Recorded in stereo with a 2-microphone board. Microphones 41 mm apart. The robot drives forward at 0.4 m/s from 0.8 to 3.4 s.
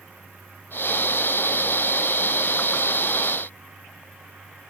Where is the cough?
No cough in this recording.